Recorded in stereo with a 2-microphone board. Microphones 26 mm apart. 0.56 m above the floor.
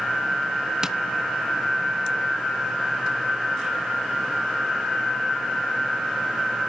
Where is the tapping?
20° right (ahead or behind), 0.7 m.